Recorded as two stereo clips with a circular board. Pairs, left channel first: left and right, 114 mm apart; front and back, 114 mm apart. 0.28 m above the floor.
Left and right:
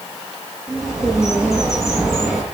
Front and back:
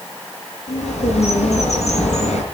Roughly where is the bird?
Ahead.